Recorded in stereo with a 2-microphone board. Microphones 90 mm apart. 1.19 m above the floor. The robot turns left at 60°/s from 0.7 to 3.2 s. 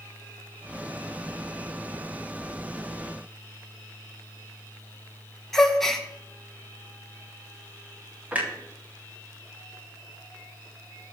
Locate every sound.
5.5 s a gasp: 5° left (ahead or behind), 1.4 m
8.3 s a clunk: 20° right (ahead or behind), 2 m